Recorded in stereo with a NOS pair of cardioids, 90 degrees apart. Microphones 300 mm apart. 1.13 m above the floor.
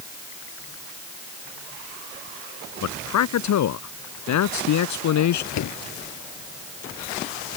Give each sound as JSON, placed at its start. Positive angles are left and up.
{"t": 2.8, "sound": "a man speaking", "azimuth_deg": 70}
{"t": 5.5, "sound": "a door slam", "azimuth_deg": 65}